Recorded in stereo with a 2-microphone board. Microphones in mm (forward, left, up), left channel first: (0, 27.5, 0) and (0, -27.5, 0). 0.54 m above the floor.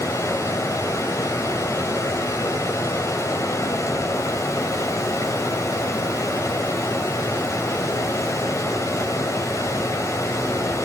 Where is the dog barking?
No dog barking in this recording.